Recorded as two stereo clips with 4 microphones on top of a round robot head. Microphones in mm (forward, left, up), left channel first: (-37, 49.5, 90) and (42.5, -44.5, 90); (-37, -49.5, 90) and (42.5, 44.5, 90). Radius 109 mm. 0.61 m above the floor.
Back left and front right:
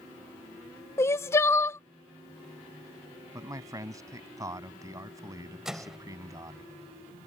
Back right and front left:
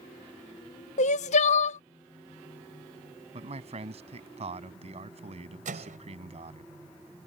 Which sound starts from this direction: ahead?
A man speaking, at 3.3 s.